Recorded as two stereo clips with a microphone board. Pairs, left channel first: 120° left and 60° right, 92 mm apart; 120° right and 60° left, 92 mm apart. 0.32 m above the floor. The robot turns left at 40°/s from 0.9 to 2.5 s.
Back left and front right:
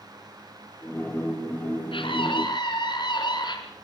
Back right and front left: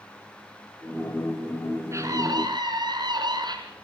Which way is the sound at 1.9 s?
115° left.